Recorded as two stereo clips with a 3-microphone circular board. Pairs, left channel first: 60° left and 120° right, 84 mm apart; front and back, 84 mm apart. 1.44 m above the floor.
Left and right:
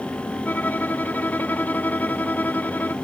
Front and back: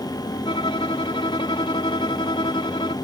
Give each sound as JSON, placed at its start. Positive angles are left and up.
{"t": 0.5, "sound": "a violin", "azimuth_deg": -10}